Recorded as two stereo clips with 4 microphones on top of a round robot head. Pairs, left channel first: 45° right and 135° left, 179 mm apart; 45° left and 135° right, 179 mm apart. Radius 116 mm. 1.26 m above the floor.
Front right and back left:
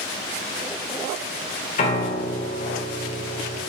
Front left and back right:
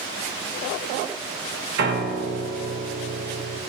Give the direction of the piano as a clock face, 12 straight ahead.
3 o'clock.